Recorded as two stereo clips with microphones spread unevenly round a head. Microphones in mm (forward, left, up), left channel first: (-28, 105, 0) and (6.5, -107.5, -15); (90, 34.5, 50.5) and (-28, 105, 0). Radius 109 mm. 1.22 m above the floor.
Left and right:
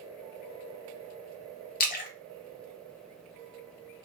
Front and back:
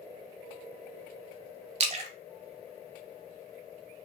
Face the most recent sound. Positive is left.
turn(degrees=100)